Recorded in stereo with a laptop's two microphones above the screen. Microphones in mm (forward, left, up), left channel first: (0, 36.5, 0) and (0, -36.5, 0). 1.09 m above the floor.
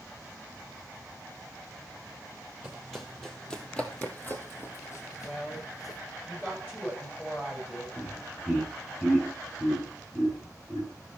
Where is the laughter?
10° left (ahead or behind), 9.5 m.